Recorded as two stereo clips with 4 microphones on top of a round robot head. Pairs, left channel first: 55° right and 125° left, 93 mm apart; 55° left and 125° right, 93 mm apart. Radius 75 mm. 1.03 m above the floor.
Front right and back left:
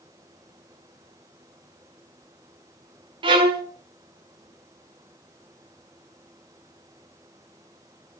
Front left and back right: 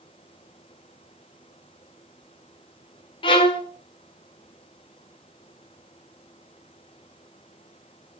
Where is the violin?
90° left, 1.6 m.